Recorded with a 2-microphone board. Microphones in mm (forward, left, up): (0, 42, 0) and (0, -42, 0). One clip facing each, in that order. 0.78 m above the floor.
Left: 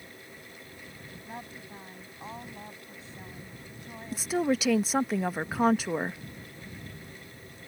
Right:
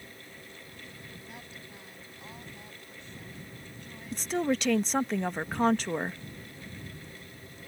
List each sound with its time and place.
1.2 s a woman speaking: 35° left (ahead or behind)
4.1 s a woman speaking: 5° left (ahead or behind)